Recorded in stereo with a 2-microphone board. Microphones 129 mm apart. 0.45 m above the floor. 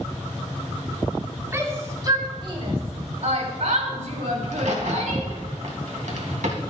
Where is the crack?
65° right (ahead or behind), 2.5 m.